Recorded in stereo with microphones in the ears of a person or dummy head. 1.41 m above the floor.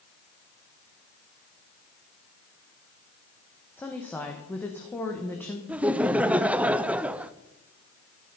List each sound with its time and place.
3.8 s a woman speaking: 10° left (ahead or behind), 1.3 m
5.7 s laughter: 10° right (ahead or behind), 0.5 m